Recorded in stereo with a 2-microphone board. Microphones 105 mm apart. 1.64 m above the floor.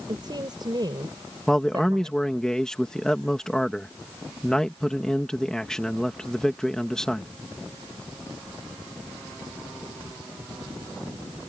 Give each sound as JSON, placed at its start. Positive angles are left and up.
{"t": 0.1, "sound": "a woman speaking", "side_deg": -45}
{"t": 1.5, "sound": "a man speaking", "side_deg": 5}